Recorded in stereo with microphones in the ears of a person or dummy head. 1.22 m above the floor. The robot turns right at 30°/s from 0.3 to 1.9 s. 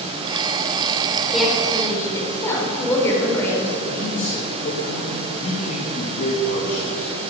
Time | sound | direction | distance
1.3 | a woman speaking | centre (ahead or behind) | 3.5 m
3.9 | a man speaking | 45° left (ahead or behind) | 1.7 m